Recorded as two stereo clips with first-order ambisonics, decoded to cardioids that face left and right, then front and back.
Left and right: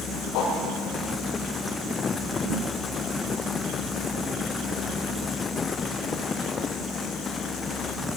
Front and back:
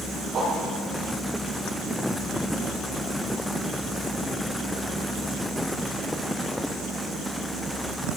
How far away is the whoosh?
About 7.5 m.